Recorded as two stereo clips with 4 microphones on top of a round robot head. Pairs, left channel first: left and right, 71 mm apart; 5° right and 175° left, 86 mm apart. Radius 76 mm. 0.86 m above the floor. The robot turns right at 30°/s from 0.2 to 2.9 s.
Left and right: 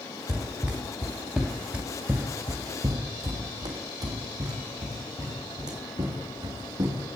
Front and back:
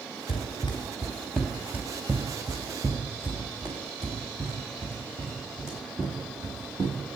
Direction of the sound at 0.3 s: 20° right.